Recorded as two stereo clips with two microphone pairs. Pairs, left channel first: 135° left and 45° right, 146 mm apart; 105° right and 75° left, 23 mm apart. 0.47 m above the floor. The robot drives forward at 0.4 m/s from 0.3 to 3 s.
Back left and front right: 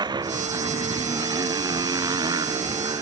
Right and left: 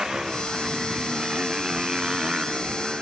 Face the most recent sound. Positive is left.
turn(degrees=20)